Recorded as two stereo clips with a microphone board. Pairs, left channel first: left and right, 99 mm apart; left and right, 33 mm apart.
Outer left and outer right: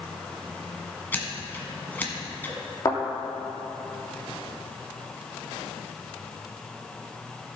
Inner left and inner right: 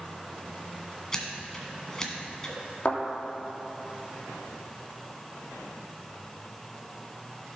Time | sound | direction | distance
1.1 | scissors | 20° left (ahead or behind) | 1.5 m
2.9 | a thud | 35° left (ahead or behind) | 3 m